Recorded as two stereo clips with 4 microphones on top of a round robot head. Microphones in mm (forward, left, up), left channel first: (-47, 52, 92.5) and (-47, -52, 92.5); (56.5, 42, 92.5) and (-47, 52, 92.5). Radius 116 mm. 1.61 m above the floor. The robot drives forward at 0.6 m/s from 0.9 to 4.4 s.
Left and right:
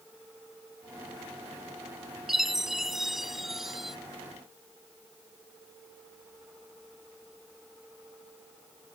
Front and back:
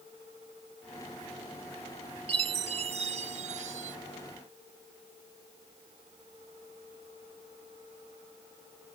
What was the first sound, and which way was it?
A chime, 175° right.